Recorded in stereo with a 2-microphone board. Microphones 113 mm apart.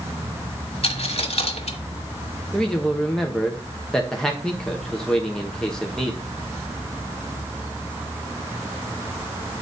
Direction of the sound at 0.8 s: 65° left (ahead or behind).